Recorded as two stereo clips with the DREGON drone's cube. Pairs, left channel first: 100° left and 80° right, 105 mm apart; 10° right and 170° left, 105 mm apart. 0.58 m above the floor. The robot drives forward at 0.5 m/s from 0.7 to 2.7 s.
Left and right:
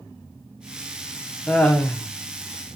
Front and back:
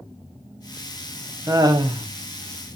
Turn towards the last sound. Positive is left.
turn(degrees=175)